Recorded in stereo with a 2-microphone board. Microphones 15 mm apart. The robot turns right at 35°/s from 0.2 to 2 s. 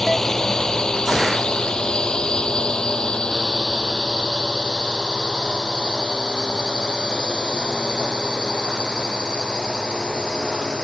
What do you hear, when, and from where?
0.0 s a drone: 25° left (ahead or behind); by 10.8 s 65° left (ahead or behind)